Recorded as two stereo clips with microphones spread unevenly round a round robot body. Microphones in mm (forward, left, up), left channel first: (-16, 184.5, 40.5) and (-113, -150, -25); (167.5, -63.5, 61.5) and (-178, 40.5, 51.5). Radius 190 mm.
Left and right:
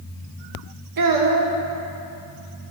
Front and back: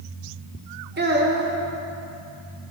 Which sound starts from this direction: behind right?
A child speaking, at 1.0 s.